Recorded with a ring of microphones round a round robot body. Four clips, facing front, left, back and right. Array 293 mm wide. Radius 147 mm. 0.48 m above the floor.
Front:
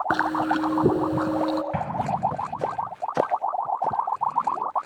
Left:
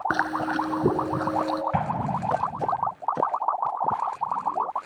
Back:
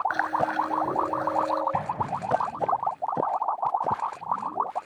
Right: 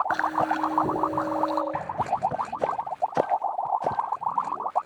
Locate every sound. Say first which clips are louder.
0.1 s chewing: right 1 dB, front 3 dB; 35° left, 2.5 m
1.7 s an explosion: left 1 dB, front 2 dB; 60° left, 2.5 m